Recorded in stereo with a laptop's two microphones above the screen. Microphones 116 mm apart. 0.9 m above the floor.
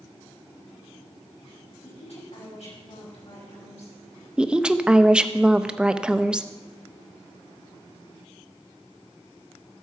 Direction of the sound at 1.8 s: 70° left (ahead or behind).